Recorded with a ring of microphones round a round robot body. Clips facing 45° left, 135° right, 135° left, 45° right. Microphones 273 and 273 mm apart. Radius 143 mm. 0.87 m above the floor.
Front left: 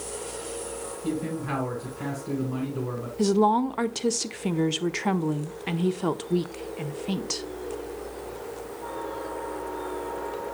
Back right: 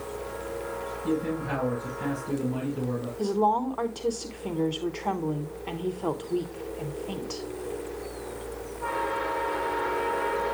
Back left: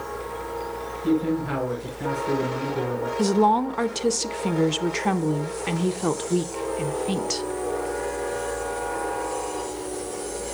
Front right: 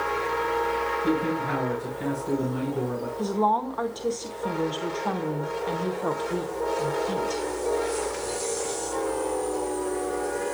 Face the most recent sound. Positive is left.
turn(degrees=95)